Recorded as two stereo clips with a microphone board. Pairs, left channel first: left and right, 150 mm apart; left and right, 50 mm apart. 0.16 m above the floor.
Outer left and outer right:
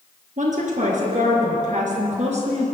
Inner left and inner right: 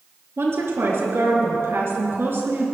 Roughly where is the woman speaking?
Right.